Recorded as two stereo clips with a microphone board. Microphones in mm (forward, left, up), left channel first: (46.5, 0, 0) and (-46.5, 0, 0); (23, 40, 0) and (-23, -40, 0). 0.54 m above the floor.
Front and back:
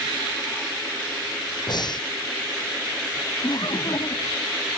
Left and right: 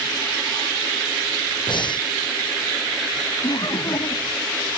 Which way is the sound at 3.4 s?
30° left.